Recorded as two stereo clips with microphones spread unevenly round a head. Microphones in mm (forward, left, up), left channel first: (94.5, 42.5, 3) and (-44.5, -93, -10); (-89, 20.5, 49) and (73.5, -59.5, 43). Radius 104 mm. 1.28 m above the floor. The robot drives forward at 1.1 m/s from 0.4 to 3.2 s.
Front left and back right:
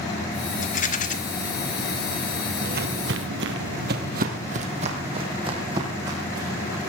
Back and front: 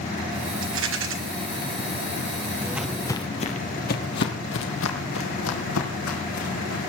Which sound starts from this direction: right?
Footsteps, at 2.6 s.